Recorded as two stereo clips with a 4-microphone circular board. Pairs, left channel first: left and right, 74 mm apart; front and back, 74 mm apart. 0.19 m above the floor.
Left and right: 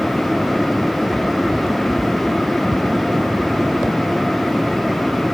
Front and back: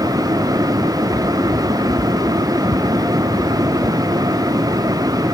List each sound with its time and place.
Only background noise.